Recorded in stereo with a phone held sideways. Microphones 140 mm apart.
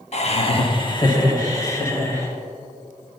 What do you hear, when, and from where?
0.1 s laughter: 50° left (ahead or behind), 1.1 m; by 2.3 s 20° left (ahead or behind), 3 m